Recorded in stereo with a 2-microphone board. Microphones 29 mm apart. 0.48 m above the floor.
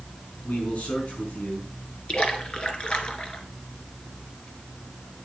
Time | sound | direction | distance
0.4 | a man speaking | 60° left (ahead or behind) | 4.5 m
2.1 | a splash | 35° left (ahead or behind) | 1.7 m